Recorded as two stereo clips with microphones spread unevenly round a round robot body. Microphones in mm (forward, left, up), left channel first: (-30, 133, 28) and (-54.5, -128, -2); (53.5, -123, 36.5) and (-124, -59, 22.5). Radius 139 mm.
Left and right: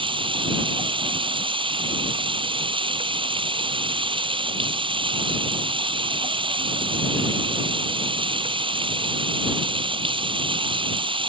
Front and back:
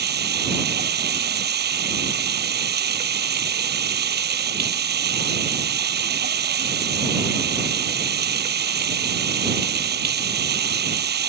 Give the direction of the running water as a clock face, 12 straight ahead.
6 o'clock.